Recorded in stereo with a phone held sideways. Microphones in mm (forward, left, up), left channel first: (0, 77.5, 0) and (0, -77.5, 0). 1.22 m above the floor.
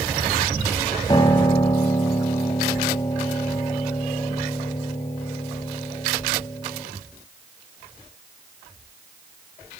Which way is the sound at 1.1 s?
30° left (ahead or behind).